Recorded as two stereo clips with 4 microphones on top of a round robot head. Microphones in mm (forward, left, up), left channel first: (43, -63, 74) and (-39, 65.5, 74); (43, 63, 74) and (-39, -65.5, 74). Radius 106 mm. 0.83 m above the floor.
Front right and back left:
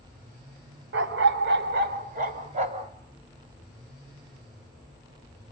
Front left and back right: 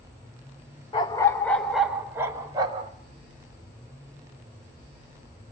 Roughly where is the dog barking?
Behind left.